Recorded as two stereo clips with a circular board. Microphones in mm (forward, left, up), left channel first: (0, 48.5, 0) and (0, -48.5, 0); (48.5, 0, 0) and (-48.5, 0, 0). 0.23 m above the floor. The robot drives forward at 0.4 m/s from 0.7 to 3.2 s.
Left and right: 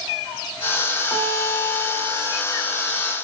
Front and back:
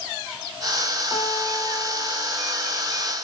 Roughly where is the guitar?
Ahead.